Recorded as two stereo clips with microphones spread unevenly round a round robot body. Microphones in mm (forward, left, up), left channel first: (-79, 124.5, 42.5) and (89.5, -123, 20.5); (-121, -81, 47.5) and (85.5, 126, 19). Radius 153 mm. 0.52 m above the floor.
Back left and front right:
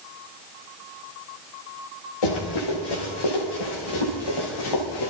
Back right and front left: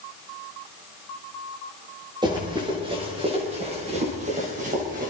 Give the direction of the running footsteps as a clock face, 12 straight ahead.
8 o'clock.